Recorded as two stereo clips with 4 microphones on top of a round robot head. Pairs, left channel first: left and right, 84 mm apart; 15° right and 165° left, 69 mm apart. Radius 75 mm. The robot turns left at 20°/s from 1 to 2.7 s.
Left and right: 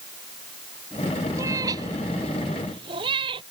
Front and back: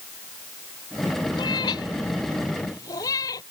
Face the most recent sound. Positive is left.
turn(degrees=-60)